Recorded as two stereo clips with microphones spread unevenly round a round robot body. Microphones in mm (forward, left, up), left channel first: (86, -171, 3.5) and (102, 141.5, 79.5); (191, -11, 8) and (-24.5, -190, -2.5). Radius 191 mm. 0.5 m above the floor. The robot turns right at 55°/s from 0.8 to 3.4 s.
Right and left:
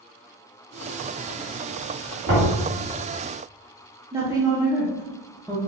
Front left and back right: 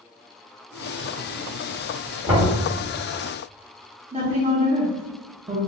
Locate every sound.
2.3 s knocking: 135° left, 1.4 m; by 2.5 s 150° left, 1.4 m
4.1 s a woman speaking: 175° right, 0.7 m